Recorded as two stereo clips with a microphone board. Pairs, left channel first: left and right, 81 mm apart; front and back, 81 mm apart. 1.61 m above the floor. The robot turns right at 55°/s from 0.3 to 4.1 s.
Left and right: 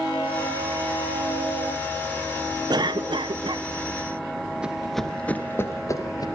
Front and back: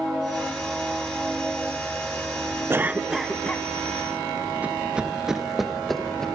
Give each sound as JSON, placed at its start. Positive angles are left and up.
{"t": 2.7, "sound": "a cough", "azimuth_deg": -120, "distance_m": 0.8}
{"t": 4.6, "sound": "running footsteps", "azimuth_deg": -140, "distance_m": 1.6}